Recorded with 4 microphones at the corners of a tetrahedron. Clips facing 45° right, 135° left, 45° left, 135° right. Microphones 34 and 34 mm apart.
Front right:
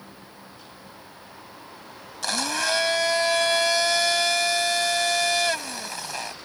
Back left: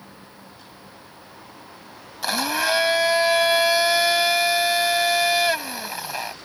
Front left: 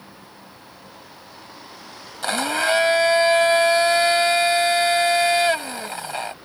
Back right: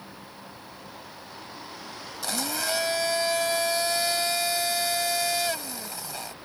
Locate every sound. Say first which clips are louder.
2.2 s a blender: back left 3 dB, front left 9 dB; 65° left